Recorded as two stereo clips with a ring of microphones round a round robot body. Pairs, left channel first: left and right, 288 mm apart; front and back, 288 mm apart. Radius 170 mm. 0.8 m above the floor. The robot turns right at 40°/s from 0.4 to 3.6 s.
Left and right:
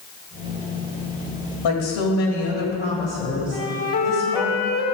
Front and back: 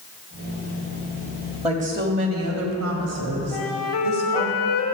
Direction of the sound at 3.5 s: 40° left.